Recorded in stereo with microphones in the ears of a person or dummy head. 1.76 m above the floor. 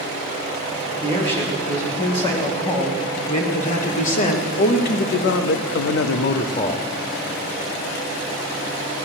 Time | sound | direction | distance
1.0 | a man speaking | 25° left (ahead or behind) | 3.5 m